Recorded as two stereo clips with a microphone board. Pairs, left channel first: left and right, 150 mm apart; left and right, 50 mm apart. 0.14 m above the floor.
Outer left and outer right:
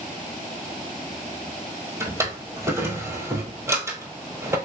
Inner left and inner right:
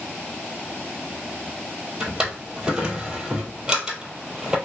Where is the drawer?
20° right (ahead or behind), 0.9 m.